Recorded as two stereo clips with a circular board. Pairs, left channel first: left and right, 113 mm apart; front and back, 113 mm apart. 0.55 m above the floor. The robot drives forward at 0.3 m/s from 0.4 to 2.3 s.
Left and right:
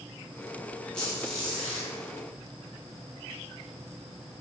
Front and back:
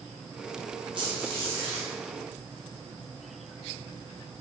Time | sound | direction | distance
0.9 | a squeak | 170° left | 0.6 m